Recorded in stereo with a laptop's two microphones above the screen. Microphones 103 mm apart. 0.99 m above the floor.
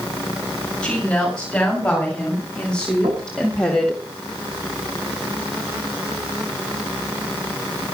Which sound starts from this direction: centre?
A woman speaking, at 0.8 s.